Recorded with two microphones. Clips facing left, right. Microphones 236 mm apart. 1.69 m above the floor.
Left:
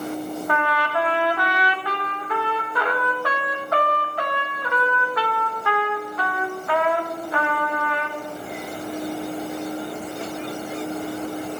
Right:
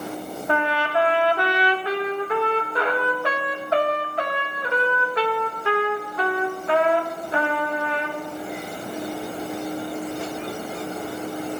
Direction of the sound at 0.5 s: 25° right (ahead or behind).